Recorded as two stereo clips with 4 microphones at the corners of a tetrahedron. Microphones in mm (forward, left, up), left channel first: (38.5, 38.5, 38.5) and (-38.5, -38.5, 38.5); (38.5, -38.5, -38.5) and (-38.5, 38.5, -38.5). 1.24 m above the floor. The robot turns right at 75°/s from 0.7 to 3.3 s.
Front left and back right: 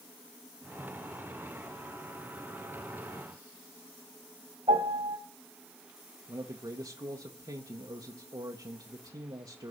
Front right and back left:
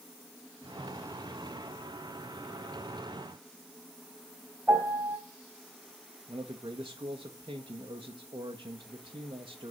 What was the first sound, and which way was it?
A piano, 150° right.